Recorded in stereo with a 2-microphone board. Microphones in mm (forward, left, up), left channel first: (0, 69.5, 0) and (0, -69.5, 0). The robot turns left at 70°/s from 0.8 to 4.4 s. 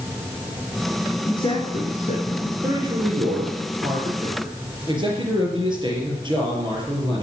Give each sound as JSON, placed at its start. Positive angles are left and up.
{"t": 1.2, "sound": "a man speaking", "side_deg": 25, "distance_m": 2.0}
{"t": 2.6, "sound": "a man speaking", "azimuth_deg": -20, "distance_m": 4.0}